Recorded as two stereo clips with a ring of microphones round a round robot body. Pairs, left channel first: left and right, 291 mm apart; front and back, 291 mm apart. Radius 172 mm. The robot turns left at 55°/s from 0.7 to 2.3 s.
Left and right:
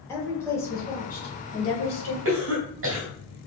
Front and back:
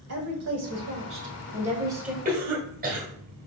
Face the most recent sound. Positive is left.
turn(degrees=-125)